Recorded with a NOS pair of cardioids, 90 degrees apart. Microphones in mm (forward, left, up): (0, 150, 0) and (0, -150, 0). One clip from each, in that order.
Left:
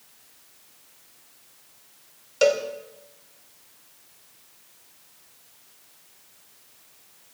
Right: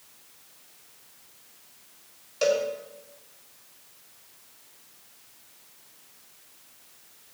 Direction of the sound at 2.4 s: 65° left.